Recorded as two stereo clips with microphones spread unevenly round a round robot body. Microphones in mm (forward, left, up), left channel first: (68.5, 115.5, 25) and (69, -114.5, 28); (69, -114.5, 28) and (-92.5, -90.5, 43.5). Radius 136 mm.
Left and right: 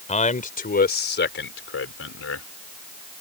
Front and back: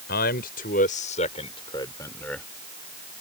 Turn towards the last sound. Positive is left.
turn(degrees=80)